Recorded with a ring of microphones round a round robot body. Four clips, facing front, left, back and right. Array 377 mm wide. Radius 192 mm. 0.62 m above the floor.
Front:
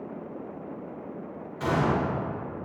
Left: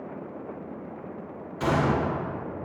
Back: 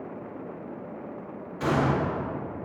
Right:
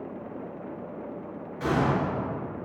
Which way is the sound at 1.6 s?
90° left.